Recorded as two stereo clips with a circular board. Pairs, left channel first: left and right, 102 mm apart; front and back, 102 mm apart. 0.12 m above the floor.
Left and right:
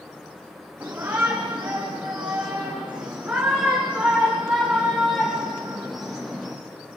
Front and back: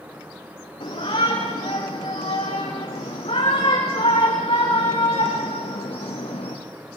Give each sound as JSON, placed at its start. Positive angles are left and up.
{"t": 0.8, "sound": "a shout", "azimuth_deg": -20, "distance_m": 7.5}